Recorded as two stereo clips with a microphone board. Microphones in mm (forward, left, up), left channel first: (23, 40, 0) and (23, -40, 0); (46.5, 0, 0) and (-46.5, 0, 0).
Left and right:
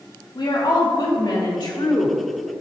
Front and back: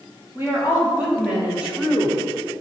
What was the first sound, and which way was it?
A woman speaking, 110° left.